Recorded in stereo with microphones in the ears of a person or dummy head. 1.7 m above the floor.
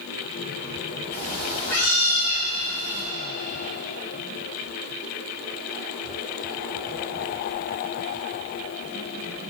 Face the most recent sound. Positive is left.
turn(degrees=50)  # may be behind; listen again after turning